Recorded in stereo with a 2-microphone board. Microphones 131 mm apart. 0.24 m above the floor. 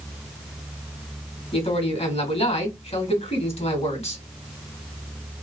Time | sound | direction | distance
1.5 | a man speaking | 55° left (ahead or behind) | 2.5 m